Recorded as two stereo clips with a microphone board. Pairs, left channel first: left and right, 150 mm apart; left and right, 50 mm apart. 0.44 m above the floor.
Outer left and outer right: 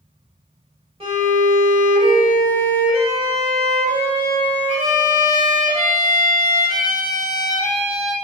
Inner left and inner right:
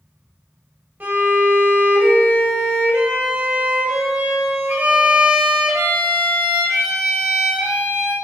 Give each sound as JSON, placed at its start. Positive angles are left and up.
{"t": 1.0, "sound": "a violin", "side_deg": -40, "distance_m": 1.3}